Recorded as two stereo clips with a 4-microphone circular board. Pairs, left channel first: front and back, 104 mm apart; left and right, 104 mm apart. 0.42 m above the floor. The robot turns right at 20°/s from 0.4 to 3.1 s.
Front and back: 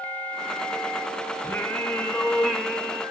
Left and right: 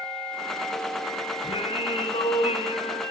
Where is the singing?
75° left, 3.5 m; by 3.0 s 105° left, 3.5 m.